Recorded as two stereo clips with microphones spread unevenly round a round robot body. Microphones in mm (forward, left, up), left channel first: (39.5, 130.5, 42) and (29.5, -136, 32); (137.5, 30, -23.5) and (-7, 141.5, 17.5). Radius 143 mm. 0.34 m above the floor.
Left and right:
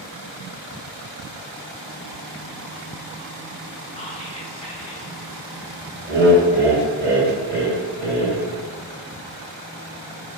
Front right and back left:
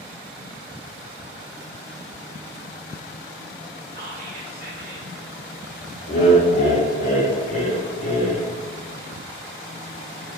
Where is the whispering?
145° left, 1.0 m.